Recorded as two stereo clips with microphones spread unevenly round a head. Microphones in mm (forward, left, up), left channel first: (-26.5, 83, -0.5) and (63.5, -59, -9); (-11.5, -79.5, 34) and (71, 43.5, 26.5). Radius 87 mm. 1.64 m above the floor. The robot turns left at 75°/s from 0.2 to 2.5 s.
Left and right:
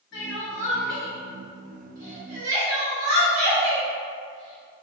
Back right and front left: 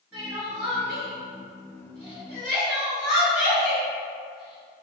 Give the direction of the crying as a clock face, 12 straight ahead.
7 o'clock.